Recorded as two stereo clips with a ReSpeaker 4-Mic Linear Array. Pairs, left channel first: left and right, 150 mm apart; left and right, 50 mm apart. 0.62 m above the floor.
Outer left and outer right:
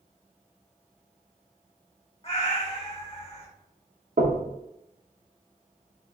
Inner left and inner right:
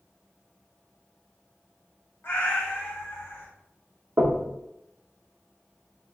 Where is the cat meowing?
45° left (ahead or behind), 0.7 m.